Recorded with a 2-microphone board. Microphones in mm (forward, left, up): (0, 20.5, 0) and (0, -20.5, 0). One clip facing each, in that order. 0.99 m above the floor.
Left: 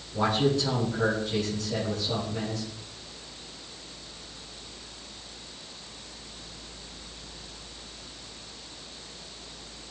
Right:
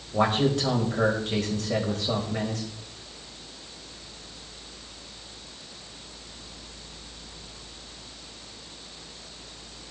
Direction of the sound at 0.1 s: 65° right (ahead or behind).